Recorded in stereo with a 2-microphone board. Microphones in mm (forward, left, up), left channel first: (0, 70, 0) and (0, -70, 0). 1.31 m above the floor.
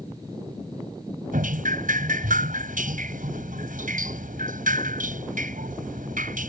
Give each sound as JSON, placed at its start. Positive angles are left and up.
{"t": 1.3, "sound": "dripping", "side_deg": -75}